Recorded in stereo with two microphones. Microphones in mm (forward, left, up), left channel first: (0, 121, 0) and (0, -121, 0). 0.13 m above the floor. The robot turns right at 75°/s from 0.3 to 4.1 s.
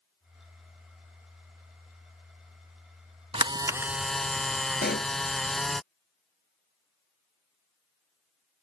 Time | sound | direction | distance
3.3 | a camera shutter | 20° right (ahead or behind) | ?
4.8 | a pop | 40° left (ahead or behind) | ?